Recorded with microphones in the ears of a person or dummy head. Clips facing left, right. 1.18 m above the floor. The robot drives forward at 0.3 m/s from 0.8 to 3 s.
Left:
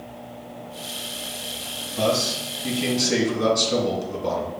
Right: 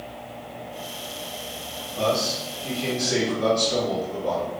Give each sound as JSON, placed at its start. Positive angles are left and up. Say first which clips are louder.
{"t": 2.0, "sound": "a man speaking", "louder": "left 1 dB", "side_deg": 60, "distance_m": 1.3}